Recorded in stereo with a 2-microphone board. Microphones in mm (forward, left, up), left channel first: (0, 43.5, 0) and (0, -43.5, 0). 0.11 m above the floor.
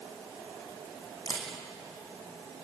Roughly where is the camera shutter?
Left.